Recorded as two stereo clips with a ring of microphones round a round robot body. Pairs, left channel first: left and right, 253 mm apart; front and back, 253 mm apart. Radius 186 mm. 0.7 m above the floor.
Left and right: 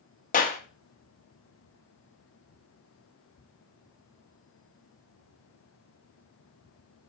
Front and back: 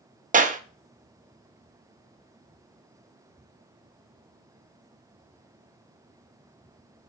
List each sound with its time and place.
0.3 s a clap: 135° left, 0.8 m